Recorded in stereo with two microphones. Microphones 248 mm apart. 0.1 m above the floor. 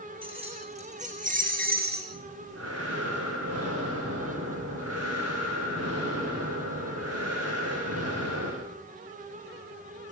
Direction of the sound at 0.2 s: 20° right (ahead or behind).